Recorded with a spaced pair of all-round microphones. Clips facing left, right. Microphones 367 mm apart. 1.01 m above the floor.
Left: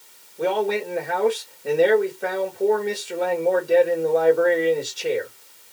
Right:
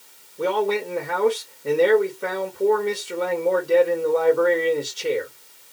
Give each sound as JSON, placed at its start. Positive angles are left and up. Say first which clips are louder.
{"t": 0.4, "sound": "a man speaking", "louder": "even", "side_deg": -10, "distance_m": 1.5}